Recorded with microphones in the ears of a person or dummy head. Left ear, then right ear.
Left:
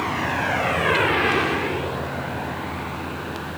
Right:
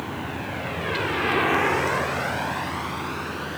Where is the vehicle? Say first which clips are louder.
Left 8 dB; 55° left (ahead or behind); by 3.6 s 85° right.